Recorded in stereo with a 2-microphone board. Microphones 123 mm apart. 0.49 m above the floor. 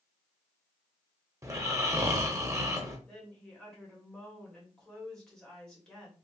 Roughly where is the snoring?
Right.